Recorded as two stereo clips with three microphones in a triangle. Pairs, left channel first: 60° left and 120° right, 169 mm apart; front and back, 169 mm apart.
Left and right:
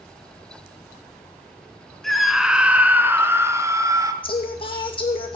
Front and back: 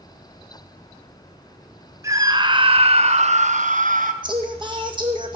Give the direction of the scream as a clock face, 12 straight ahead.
7 o'clock.